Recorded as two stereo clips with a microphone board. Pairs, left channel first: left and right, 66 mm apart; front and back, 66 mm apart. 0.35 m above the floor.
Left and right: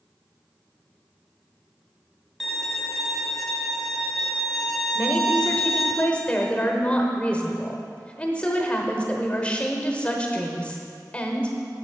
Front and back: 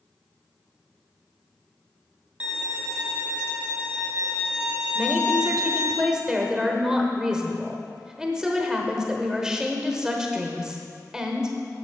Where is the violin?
170° right, 1.1 m.